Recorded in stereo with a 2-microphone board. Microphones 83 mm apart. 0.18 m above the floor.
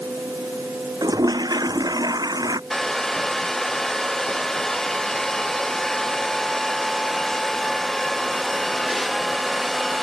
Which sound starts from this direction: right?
A toilet flushing, at 1.0 s.